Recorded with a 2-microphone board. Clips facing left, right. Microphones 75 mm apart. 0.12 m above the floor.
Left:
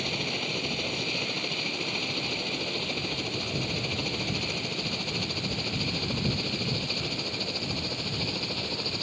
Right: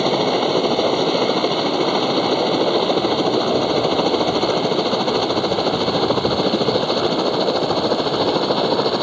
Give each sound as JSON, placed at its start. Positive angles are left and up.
{"t": 0.0, "sound": "a helicopter", "side_deg": -65}